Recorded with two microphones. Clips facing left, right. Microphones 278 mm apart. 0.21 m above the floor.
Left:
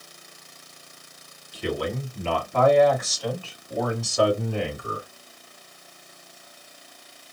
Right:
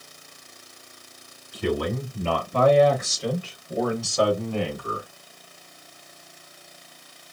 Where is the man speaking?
55° right (ahead or behind), 1.6 m; by 5.1 s 25° left (ahead or behind), 1.3 m.